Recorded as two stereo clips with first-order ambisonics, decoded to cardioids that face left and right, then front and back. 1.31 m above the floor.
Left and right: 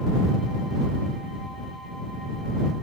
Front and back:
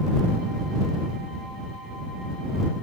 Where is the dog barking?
I don't hear a dog barking.